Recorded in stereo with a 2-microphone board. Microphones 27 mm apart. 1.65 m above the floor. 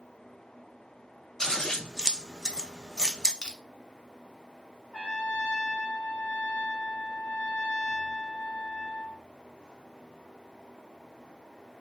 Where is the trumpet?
50° left (ahead or behind), 1.1 m.